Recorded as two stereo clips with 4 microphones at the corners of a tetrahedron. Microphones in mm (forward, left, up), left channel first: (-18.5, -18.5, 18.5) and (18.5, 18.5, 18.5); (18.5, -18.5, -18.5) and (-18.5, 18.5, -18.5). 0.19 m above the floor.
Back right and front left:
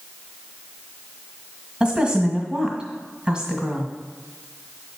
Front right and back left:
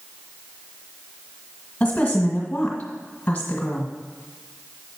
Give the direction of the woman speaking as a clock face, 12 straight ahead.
12 o'clock.